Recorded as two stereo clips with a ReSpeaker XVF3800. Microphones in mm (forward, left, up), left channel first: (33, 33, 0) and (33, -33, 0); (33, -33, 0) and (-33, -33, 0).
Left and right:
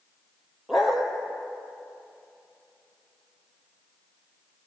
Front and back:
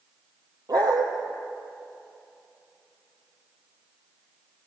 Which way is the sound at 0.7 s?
175° right.